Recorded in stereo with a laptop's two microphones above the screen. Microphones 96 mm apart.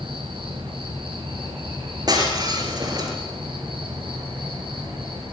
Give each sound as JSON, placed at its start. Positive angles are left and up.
{"t": 0.0, "sound": "an insect", "side_deg": -65, "distance_m": 6.0}
{"t": 2.1, "sound": "breaking glass", "side_deg": -45, "distance_m": 3.5}